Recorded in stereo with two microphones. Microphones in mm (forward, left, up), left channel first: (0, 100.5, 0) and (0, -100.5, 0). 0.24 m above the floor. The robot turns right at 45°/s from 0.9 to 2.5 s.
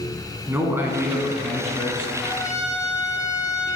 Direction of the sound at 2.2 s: 25° left (ahead or behind).